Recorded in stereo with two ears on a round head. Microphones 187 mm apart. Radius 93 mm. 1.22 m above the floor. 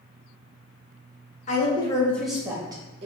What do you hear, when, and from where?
1.5 s a woman speaking: 35° left (ahead or behind), 1.1 m; by 3.1 s 30° right (ahead or behind), 1.2 m